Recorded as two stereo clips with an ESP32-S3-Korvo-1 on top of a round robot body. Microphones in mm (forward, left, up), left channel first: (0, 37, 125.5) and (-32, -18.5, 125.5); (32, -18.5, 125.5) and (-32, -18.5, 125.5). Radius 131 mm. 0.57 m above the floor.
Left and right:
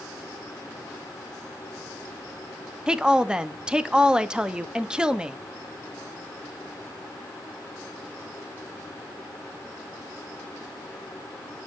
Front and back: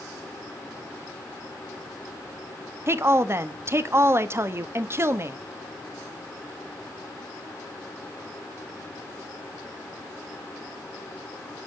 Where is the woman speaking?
170° left, 0.8 m.